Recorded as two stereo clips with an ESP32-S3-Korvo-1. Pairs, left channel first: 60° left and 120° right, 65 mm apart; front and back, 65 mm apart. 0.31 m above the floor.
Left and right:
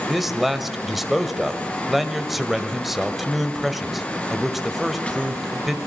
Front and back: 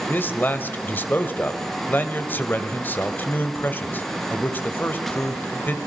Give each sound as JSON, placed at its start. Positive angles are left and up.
{"t": 0.1, "sound": "a man speaking", "azimuth_deg": -35, "distance_m": 1.8}